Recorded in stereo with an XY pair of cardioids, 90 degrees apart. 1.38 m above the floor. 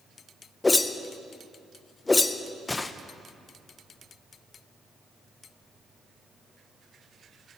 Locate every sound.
0.6 s a whoosh: 25° left, 0.8 m